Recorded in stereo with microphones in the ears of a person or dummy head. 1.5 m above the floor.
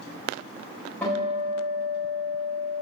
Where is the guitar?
10° left (ahead or behind), 4.5 m.